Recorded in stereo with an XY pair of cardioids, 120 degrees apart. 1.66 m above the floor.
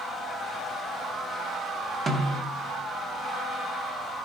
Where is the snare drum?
30° right, 1.8 m.